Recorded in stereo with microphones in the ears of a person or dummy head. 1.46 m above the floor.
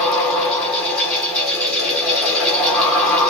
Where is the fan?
10° left (ahead or behind), 1.4 m.